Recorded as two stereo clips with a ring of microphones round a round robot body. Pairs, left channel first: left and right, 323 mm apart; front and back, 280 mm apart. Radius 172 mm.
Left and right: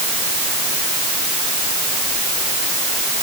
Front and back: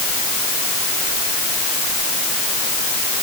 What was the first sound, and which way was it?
Only background noise.